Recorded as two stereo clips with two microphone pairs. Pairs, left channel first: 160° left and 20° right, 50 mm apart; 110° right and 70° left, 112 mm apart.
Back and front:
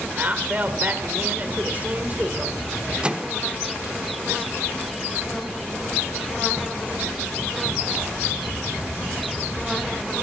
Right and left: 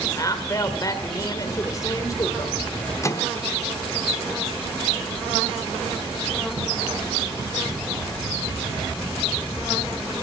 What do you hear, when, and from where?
0.1 s a woman speaking: 65° right, 1.9 m
3.0 s a microwave: 75° right, 0.7 m